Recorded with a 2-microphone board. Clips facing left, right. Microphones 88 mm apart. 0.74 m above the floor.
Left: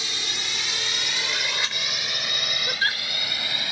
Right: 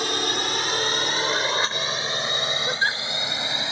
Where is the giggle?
15° right (ahead or behind).